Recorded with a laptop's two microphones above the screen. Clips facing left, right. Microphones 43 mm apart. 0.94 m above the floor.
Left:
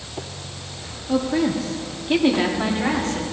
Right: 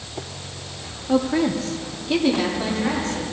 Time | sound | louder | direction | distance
1.1 | a woman speaking | right 1 dB | 20° right (ahead or behind) | 2 m